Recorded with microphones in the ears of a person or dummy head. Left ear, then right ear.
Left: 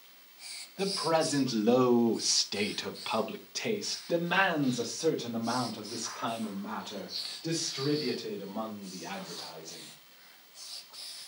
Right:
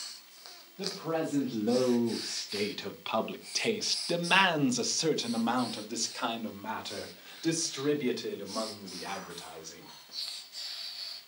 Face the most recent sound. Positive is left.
turn(degrees=-80)